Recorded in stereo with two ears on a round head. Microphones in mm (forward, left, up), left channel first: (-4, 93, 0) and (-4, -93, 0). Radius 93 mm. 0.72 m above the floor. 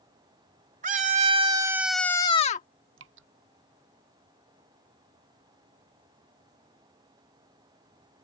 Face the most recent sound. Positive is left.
turn(degrees=-65)  # may be behind; listen again after turning